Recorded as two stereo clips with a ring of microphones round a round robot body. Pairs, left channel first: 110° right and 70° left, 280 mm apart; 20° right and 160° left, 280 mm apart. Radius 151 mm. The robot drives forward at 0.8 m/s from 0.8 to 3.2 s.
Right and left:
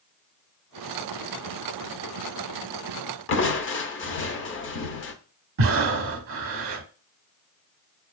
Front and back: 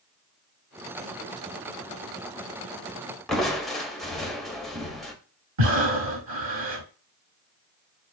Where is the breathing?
110° left, 0.6 m.